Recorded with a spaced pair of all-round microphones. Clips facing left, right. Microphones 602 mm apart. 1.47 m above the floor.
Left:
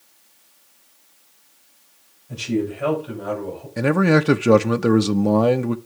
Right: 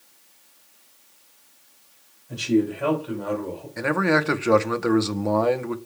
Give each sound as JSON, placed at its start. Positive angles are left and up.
{"t": 2.3, "sound": "a man speaking", "side_deg": 30, "distance_m": 6.0}
{"t": 3.8, "sound": "a man speaking", "side_deg": 60, "distance_m": 0.7}